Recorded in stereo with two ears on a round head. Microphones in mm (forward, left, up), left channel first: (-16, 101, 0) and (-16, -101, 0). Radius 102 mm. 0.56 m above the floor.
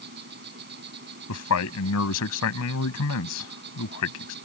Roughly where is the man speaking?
Left.